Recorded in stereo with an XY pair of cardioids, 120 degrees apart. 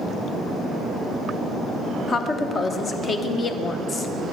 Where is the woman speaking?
35° left, 0.9 m.